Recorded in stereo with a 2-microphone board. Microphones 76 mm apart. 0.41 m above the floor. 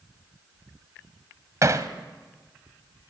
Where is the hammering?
45° right (ahead or behind), 1.1 m.